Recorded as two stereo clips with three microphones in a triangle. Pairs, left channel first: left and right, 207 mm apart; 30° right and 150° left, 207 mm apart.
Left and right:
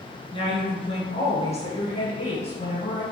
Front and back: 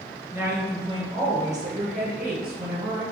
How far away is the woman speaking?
About 1.3 m.